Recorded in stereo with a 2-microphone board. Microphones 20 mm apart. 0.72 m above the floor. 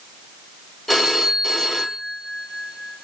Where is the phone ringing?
10° left (ahead or behind), 0.9 m.